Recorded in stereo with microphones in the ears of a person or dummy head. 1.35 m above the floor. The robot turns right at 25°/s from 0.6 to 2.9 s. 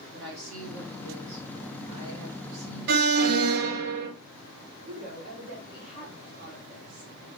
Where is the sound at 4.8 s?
60° right (ahead or behind), 3 m.